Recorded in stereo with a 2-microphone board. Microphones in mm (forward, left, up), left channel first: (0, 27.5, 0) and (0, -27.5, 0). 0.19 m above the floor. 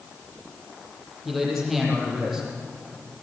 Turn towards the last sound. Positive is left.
turn(degrees=0)  # may be behind; listen again after turning